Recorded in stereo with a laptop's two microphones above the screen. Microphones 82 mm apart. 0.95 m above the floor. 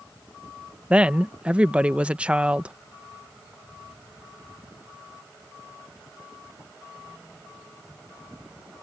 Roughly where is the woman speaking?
Centre.